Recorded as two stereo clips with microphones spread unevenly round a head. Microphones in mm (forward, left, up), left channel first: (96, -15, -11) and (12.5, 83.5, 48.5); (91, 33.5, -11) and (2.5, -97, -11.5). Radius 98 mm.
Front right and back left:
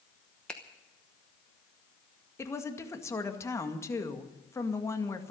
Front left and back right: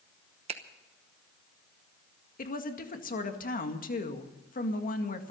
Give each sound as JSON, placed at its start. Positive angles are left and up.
{"t": 0.5, "sound": "a finger snap", "azimuth_deg": -160, "distance_m": 0.9}
{"t": 2.4, "sound": "a woman speaking", "azimuth_deg": 30, "distance_m": 2.0}